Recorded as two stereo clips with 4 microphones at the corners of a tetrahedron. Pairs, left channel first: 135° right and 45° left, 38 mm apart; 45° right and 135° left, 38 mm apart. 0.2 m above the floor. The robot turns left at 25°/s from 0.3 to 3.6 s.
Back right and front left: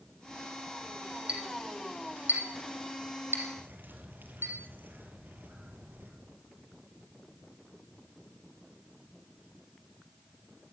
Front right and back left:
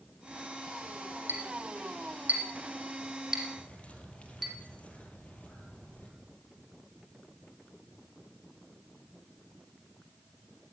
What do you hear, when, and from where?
1.3 s a clink: 105° left, 5 m; by 4.5 s 50° left, 5 m
3.6 s a bird: 10° left, 4.5 m